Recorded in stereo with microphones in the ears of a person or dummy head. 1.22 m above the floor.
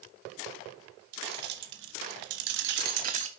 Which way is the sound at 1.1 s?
65° right (ahead or behind).